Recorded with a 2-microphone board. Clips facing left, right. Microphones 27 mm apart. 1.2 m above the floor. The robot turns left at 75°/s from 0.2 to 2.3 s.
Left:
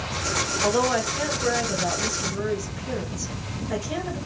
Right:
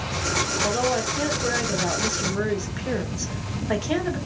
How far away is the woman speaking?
About 1.7 m.